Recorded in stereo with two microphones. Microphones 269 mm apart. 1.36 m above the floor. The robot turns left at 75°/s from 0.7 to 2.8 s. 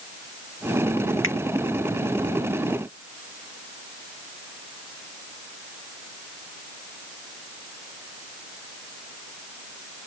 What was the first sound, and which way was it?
A finger snap, 50° left (ahead or behind).